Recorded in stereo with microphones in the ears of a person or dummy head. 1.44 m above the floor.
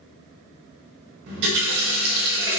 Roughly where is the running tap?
Right.